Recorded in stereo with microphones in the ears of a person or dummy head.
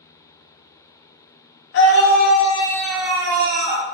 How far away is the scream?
About 1.1 m.